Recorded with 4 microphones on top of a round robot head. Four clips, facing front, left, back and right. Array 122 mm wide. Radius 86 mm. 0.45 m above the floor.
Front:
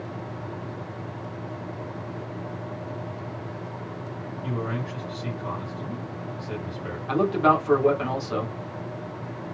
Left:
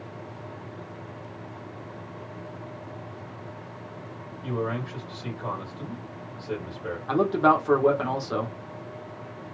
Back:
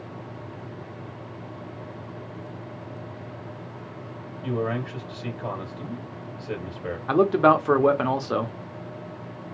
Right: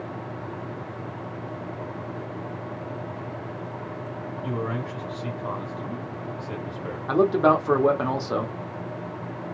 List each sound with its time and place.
4.4 s a man speaking: 165° left, 2.0 m
7.1 s a man speaking: 160° right, 1.1 m